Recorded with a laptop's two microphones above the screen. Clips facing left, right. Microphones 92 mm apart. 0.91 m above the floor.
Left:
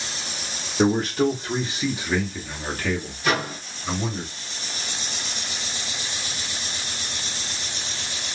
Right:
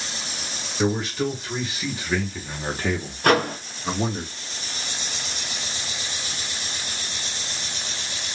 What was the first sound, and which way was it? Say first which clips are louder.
A man speaking: left 4 dB; 45° left (ahead or behind).